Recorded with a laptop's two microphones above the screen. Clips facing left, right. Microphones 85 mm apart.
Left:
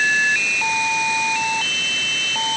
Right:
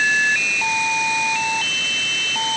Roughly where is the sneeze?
I don't hear a sneeze.